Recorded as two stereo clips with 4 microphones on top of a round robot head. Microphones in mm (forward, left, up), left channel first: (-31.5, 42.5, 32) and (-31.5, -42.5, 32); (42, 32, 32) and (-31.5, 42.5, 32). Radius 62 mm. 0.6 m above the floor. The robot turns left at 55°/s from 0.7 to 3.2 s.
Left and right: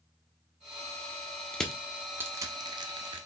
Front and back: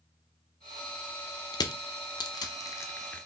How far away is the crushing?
About 0.6 m.